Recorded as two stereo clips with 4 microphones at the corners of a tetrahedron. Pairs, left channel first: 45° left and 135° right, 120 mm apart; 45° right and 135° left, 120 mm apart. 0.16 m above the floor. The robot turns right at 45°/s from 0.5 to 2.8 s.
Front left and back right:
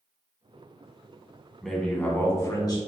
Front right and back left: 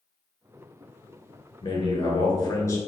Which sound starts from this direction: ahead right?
A man speaking, at 1.6 s.